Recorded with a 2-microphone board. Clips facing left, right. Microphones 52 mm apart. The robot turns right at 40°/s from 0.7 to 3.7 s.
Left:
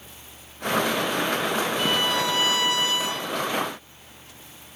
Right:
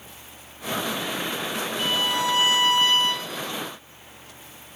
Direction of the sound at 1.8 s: 170° left.